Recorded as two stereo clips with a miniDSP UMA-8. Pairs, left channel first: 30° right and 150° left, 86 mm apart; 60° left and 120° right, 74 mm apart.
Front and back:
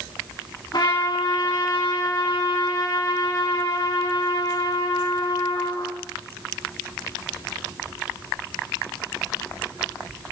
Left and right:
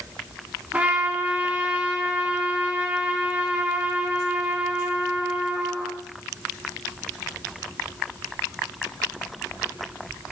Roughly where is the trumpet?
Ahead right.